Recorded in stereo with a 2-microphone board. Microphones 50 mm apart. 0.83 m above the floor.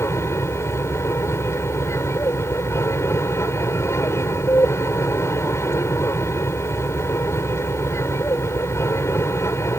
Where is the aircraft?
65° left (ahead or behind).